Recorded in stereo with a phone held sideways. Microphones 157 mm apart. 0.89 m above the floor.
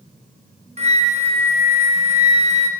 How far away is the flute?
About 1.0 m.